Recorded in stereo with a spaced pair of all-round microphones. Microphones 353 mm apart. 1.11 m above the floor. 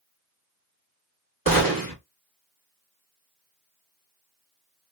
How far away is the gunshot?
About 1.4 m.